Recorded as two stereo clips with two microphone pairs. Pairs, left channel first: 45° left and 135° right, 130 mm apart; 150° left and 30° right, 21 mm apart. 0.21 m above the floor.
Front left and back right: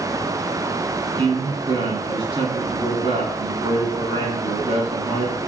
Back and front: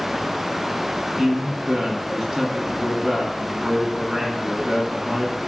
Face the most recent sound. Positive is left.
turn(degrees=-105)